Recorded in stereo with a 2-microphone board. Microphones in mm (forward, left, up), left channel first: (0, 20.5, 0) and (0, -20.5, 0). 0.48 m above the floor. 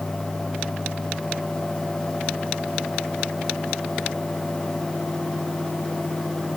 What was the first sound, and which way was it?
Only background noise.